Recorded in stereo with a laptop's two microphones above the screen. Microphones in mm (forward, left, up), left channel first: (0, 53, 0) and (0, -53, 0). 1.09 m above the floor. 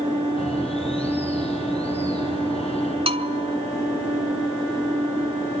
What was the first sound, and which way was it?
A bird, 70° left (ahead or behind).